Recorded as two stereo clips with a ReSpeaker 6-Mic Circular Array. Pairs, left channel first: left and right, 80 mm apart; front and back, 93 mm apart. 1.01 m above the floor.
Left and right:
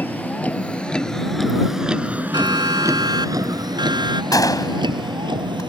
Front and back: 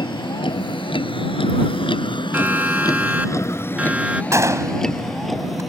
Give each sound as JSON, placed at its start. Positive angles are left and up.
{"t": 0.0, "sound": "a vehicle", "azimuth_deg": 25}
{"t": 2.3, "sound": "a siren", "azimuth_deg": -110}
{"t": 4.3, "sound": "a gunshot", "azimuth_deg": 125}